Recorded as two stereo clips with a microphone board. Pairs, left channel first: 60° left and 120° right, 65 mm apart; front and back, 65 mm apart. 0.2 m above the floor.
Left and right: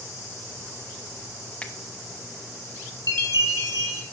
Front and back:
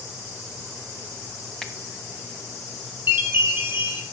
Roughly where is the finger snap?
Left.